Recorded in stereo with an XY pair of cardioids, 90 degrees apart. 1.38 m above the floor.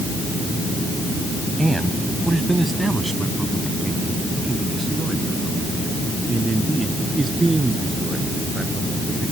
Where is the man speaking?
5° right; by 9.2 s 25° right.